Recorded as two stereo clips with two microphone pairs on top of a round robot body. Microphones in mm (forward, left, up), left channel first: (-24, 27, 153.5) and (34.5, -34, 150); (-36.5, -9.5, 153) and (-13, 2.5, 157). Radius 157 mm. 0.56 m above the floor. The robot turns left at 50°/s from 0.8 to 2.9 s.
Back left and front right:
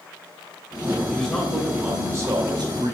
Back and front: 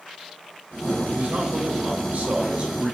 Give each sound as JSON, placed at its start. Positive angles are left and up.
{"t": 1.1, "sound": "a man speaking", "azimuth_deg": 60, "distance_m": 3.0}